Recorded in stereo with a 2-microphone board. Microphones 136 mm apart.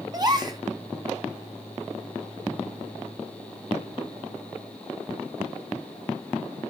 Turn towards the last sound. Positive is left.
turn(degrees=-30)  # may be behind; listen again after turning